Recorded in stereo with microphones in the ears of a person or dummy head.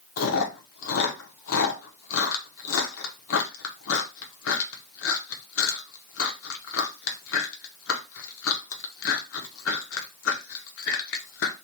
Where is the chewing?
85° left, 0.9 m.